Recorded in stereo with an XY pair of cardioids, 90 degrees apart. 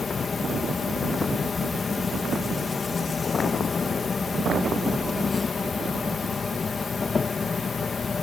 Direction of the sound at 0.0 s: 45° left.